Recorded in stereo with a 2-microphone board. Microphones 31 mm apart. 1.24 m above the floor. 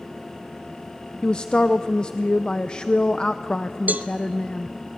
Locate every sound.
1.2 s a man speaking: 30° left (ahead or behind), 0.6 m
3.9 s a cowbell: 75° right (ahead or behind), 0.7 m